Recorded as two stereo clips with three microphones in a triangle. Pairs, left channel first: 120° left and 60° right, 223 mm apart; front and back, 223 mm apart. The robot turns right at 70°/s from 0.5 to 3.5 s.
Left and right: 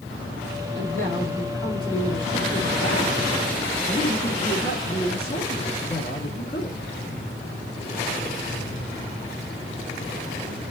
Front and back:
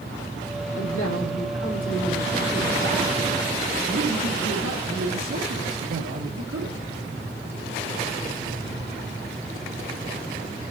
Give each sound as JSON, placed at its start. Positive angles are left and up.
{"t": 0.8, "sound": "a man speaking", "azimuth_deg": -25, "distance_m": 2.0}